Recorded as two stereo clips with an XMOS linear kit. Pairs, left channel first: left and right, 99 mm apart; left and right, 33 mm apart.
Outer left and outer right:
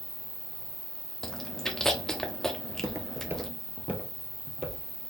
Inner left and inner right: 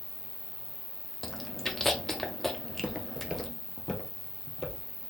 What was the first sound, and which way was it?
An insect, 40° right (ahead or behind).